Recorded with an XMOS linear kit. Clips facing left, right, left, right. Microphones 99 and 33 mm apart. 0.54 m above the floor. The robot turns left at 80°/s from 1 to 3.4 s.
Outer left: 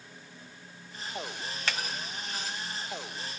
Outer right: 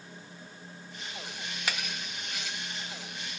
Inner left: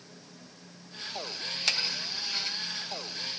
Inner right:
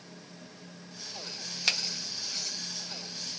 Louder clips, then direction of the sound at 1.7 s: Outer left 1 dB, even; 10° right (ahead or behind).